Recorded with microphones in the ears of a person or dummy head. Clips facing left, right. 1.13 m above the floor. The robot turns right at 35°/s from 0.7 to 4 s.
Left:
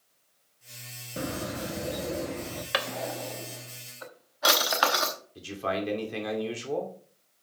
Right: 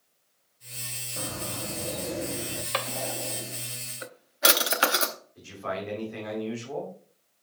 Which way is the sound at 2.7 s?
10° left (ahead or behind).